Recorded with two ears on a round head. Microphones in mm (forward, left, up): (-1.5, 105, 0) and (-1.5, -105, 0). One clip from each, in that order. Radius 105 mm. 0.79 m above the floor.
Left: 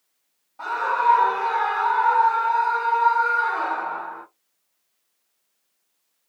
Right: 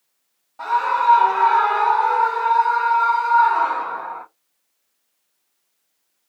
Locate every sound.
0.6 s a scream: 10° right (ahead or behind), 0.9 m; by 4.2 s 25° right (ahead or behind), 2.5 m